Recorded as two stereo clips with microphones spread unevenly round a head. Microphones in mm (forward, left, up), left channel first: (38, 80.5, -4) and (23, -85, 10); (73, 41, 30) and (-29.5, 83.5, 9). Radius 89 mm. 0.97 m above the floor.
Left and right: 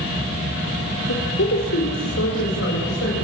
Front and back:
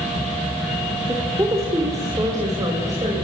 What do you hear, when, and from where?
1.1 s a woman speaking: 90° left, 3 m; by 3.2 s 105° left, 5.5 m